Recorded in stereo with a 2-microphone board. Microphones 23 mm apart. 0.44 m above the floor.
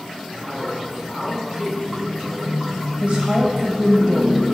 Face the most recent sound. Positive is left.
turn(degrees=-65)  # may be behind; listen again after turning